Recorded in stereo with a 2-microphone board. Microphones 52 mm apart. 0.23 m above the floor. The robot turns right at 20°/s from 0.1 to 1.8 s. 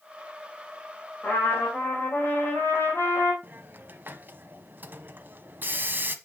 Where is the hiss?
40° right (ahead or behind), 1.0 m.